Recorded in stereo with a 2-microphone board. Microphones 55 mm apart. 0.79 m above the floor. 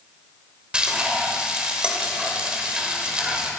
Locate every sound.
0.7 s frying: 20° right (ahead or behind), 2.5 m